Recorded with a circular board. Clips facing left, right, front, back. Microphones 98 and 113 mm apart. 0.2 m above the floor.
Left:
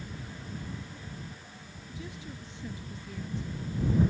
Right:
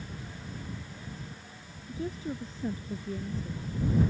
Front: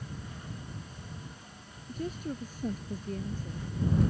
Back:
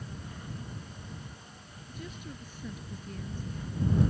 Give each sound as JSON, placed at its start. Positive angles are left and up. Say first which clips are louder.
{"t": 1.9, "sound": "a woman speaking", "louder": "right 9 dB, front 9 dB", "azimuth_deg": -45}